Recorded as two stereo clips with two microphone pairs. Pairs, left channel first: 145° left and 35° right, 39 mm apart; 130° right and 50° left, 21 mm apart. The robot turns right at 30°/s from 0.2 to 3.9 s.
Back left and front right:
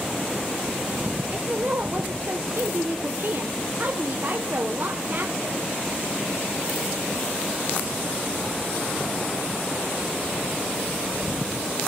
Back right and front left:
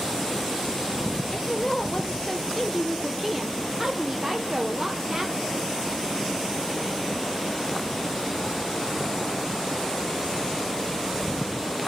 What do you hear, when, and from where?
1.3 s a woman speaking: 85° right, 0.6 m; by 5.6 s 5° right, 0.6 m